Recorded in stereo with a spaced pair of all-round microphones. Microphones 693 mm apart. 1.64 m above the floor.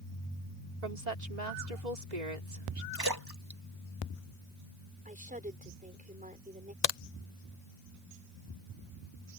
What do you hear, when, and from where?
0.8 s a woman speaking: 75° right (ahead or behind)
2.9 s a splash: 30° right (ahead or behind)
5.0 s a woman speaking: 10° right (ahead or behind)
6.8 s a crack: 70° left (ahead or behind)